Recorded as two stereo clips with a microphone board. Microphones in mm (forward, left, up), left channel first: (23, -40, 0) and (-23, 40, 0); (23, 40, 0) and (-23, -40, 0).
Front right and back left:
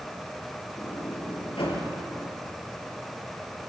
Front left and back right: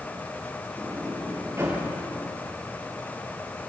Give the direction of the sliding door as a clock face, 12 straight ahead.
2 o'clock.